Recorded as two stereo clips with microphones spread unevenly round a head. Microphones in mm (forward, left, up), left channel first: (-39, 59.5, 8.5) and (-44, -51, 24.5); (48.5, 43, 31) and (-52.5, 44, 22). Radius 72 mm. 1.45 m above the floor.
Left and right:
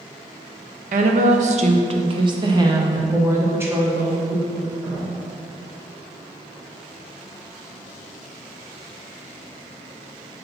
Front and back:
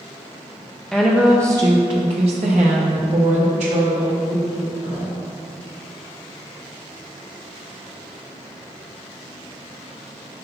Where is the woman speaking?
90° right, 0.8 m; by 5.2 s 175° right, 2 m.